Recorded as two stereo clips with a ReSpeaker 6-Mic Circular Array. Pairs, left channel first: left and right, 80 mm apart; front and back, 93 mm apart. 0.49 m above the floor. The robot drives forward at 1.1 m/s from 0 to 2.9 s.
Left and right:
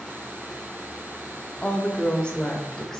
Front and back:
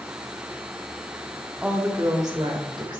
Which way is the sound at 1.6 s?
130° left.